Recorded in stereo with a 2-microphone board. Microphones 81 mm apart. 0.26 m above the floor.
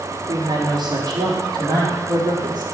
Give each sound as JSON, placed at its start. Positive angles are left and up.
{"t": 0.3, "sound": "a woman speaking", "side_deg": -60, "distance_m": 3.5}